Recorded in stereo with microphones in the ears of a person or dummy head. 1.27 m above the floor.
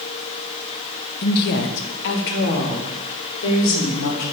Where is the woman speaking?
50° left (ahead or behind), 0.8 m; by 4.2 s 70° left (ahead or behind), 3.5 m.